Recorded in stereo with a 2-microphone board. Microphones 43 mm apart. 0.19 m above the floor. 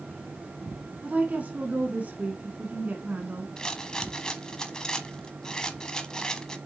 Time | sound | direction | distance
1.0 | a woman speaking | 40° right (ahead or behind) | 1.7 m
3.6 | a rattle | 20° left (ahead or behind) | 1.1 m